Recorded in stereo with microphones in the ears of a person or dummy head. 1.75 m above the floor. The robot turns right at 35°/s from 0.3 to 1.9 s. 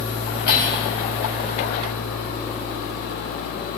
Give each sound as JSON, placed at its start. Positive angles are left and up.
{"t": 0.5, "sound": "cutlery clinking", "side_deg": 75, "distance_m": 5.0}